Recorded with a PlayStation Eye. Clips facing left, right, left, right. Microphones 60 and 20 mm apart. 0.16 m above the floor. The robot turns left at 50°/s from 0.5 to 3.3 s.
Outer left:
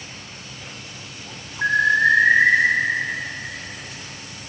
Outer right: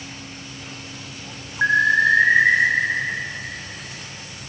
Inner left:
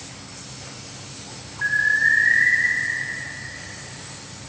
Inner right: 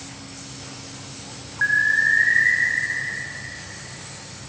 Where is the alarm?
100° right, 1.8 m; by 2.5 s 150° right, 1.8 m.